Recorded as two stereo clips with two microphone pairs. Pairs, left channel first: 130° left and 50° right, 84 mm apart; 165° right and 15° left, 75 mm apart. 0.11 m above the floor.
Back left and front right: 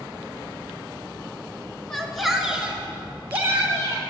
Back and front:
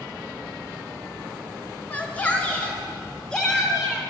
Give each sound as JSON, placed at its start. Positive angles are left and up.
{"t": 1.9, "sound": "a shout", "azimuth_deg": -165, "distance_m": 1.1}